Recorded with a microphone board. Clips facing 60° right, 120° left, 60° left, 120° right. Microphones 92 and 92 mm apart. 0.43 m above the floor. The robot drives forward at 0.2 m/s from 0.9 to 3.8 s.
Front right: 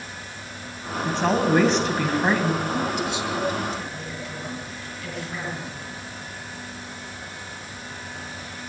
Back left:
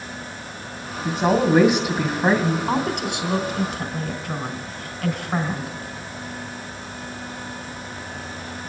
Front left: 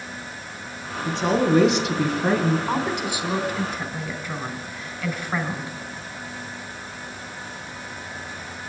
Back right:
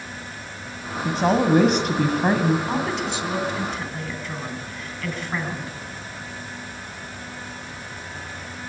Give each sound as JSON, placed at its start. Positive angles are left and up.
{"t": 1.1, "sound": "a woman speaking", "azimuth_deg": -160, "distance_m": 2.0}
{"t": 2.7, "sound": "a woman speaking", "azimuth_deg": 135, "distance_m": 3.5}